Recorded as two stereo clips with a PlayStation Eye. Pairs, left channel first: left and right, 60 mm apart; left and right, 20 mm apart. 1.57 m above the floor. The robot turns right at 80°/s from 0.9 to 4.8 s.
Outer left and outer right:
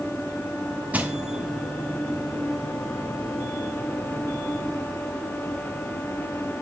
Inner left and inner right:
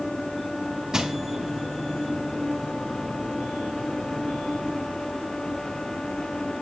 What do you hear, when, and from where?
0.9 s crushing: 30° right (ahead or behind), 1.6 m; by 1.1 s 25° right (ahead or behind), 1.6 m